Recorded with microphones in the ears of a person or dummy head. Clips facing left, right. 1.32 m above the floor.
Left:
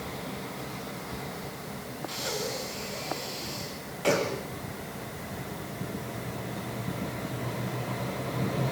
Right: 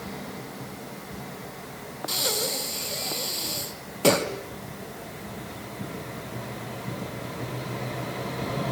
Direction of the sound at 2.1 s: 60° right (ahead or behind).